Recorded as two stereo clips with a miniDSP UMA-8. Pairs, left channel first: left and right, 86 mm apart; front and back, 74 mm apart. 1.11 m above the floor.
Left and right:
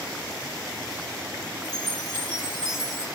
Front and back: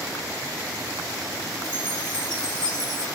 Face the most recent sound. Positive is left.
turn(degrees=0)